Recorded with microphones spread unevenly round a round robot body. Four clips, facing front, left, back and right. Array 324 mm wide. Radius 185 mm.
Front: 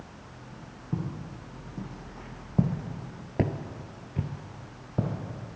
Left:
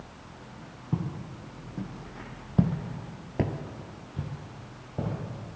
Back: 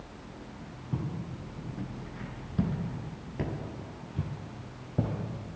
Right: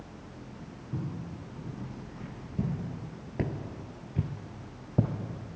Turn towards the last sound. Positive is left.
turn(degrees=-85)